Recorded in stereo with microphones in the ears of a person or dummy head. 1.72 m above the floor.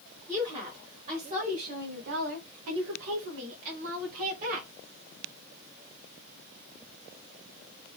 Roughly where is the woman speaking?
Centre.